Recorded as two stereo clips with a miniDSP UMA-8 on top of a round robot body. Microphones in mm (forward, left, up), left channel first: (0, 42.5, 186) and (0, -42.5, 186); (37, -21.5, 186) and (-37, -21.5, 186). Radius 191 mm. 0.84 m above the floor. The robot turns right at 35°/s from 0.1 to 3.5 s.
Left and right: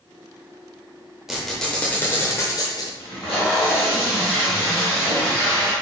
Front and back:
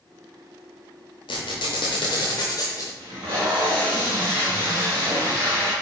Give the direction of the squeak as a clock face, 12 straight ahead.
12 o'clock.